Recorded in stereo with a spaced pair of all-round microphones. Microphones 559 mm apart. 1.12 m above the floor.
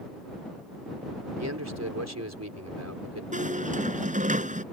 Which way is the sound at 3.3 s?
15° right (ahead or behind).